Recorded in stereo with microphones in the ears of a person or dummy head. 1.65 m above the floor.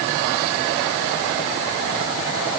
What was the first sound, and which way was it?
Only background noise.